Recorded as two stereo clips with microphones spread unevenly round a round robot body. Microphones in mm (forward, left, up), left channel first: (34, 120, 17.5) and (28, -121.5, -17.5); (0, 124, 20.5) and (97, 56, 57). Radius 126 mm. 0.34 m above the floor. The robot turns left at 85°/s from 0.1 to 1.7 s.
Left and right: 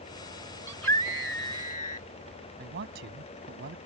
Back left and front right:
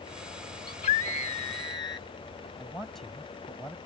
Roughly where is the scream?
Behind.